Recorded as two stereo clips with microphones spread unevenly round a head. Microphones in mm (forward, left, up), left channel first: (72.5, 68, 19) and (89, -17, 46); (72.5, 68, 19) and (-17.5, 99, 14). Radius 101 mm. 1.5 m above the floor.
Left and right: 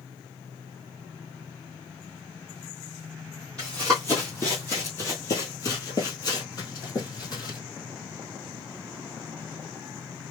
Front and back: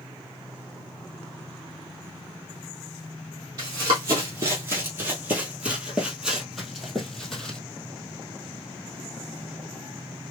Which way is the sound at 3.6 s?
160° right.